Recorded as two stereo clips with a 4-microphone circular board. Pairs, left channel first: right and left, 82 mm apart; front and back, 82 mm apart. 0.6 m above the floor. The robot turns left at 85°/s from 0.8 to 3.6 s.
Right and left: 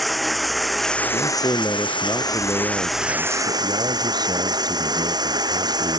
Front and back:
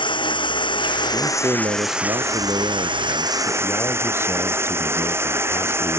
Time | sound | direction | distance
0.0 | running water | straight ahead | ?
1.1 | a man speaking | 95° right | ?